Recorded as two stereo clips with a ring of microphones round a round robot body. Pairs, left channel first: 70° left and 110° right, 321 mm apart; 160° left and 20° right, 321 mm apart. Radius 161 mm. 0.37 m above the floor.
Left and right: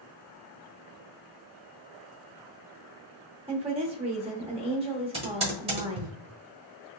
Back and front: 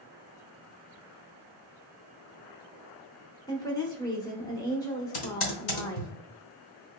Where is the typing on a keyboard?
Straight behind, 1.1 m.